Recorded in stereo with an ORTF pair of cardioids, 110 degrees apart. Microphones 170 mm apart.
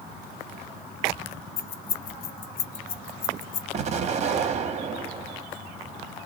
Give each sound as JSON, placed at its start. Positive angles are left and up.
{"t": 1.6, "sound": "keys jangling", "azimuth_deg": 60, "distance_m": 0.8}
{"t": 3.7, "sound": "an explosion", "azimuth_deg": -40, "distance_m": 0.6}